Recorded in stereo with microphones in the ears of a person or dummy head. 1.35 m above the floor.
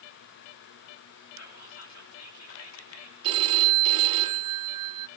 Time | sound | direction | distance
1.4 | whispering | 85° left | 3.5 m
3.2 | a phone ringing | 30° right (ahead or behind) | 1.8 m